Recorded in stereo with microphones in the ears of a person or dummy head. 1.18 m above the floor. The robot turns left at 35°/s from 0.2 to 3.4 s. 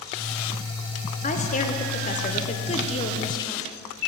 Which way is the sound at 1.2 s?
115° left.